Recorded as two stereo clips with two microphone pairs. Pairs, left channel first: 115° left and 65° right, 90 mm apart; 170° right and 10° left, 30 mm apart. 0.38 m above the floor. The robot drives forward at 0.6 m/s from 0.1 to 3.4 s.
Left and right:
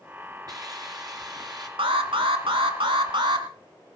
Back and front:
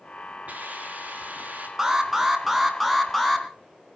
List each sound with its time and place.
0.5 s a hiss: 25° right, 5 m
1.8 s an alarm: 70° right, 2.5 m; by 3.5 s 95° right, 2.5 m